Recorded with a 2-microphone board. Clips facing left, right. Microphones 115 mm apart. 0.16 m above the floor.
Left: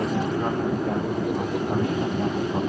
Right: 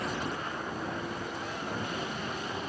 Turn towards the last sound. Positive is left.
turn(degrees=65)  # may be behind; listen again after turning